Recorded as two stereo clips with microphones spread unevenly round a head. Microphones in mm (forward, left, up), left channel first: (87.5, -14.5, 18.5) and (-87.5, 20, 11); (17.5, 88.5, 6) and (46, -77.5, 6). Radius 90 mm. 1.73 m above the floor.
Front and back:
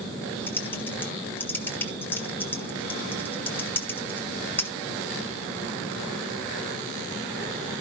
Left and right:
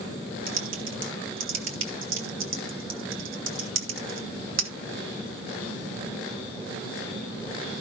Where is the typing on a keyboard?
90° right, 1.9 m.